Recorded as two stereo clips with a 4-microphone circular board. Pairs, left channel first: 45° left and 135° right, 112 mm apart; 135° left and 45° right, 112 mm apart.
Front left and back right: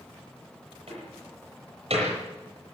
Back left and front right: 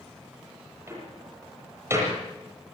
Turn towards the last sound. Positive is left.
turn(degrees=-110)